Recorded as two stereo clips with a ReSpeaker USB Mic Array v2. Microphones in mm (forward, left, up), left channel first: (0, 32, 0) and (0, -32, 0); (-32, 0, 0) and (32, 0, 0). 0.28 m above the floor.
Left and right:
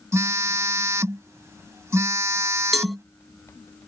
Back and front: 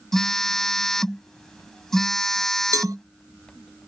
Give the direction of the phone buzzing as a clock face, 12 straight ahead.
3 o'clock.